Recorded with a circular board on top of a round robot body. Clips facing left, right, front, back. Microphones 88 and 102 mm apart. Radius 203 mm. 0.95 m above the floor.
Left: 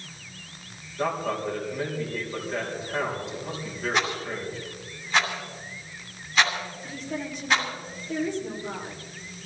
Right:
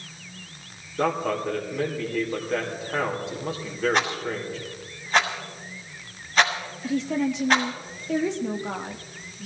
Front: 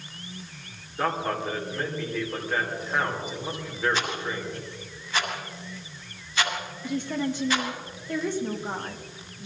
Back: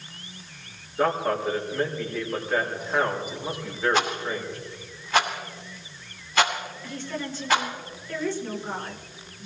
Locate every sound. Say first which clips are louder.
1.0 s a man speaking: right 3 dB, back 3 dB; 95° right, 4.5 m
3.9 s a rattle: right 2 dB, back 4 dB; 140° right, 2.5 m
6.8 s a woman speaking: right 13 dB, front 7 dB; 75° right, 1.6 m